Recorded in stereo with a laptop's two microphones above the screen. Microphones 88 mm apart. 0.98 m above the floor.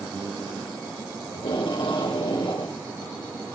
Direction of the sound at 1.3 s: 85° left.